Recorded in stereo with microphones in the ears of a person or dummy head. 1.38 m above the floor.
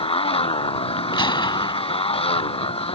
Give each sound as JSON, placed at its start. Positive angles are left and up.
{"t": 0.0, "sound": "a motorcycle", "side_deg": 25}
{"t": 1.1, "sound": "a gunshot", "side_deg": 20}